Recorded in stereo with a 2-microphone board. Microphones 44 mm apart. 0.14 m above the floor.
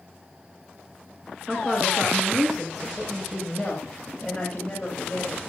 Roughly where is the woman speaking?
Centre.